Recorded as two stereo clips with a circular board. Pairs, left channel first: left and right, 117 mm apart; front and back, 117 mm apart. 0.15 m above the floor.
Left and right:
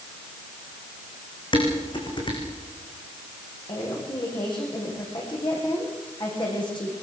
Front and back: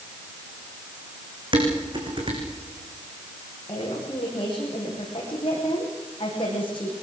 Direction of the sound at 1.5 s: 135° left.